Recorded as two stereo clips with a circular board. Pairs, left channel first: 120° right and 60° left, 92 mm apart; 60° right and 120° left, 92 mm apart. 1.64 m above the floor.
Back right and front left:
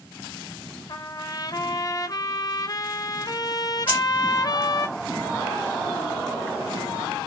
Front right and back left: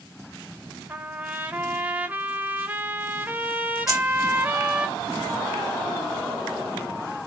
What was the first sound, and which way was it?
A trumpet, 170° right.